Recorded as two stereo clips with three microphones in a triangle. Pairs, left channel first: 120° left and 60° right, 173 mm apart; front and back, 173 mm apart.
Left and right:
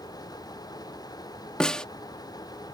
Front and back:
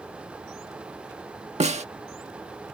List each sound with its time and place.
1.6 s a snare drum: 155° right